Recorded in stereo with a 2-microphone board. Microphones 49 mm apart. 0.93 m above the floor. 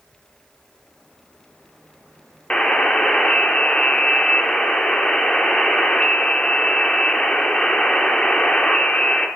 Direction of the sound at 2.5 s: 20° left (ahead or behind).